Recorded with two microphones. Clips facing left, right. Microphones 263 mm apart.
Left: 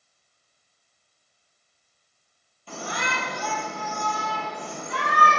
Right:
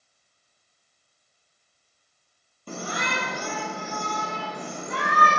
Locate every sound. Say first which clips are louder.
2.7 s a shout: right 2 dB; 50° right (ahead or behind), 6.5 m